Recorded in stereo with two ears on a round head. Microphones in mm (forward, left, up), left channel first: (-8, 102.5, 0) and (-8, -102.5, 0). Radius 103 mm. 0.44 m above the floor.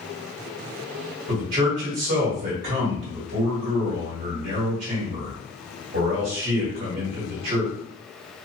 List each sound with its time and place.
1.3 s a man speaking: 45° right (ahead or behind), 1.8 m